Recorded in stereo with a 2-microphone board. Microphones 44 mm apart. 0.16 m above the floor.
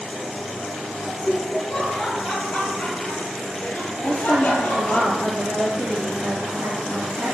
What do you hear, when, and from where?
1.1 s laughter: 10° right (ahead or behind), 2.5 m; by 5.0 s 30° left (ahead or behind), 3 m
4.0 s a woman speaking: 45° right (ahead or behind), 3 m